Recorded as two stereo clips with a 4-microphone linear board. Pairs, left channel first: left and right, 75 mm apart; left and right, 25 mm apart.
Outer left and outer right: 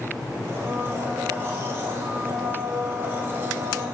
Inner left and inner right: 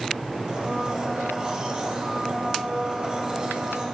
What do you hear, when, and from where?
0.5 s a blender: 35° right (ahead or behind), 1.4 m